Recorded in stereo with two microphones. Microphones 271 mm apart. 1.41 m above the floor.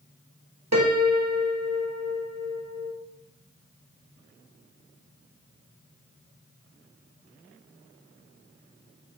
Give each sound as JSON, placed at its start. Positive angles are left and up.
{"t": 0.7, "sound": "a piano", "side_deg": -75, "distance_m": 1.4}